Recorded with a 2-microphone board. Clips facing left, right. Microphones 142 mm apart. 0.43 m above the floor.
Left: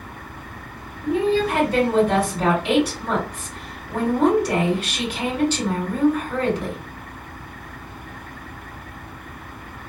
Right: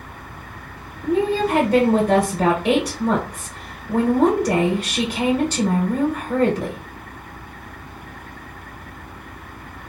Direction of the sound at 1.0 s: 40° right (ahead or behind).